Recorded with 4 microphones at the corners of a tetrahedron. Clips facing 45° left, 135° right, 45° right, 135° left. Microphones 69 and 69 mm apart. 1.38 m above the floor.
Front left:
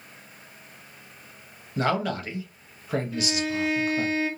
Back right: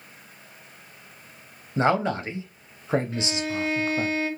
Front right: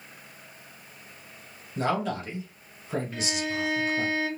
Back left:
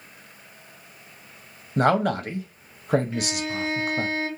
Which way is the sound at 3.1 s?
140° right.